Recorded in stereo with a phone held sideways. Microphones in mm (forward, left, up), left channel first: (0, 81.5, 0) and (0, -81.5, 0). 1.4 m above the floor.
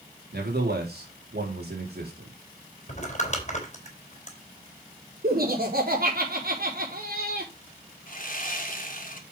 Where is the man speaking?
85° right, 4 m.